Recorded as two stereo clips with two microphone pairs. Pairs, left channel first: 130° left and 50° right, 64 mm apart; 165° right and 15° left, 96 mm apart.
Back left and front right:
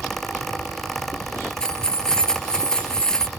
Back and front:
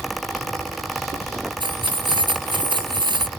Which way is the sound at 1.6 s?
55° left.